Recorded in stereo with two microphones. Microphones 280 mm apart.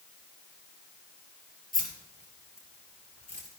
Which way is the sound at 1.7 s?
25° left (ahead or behind).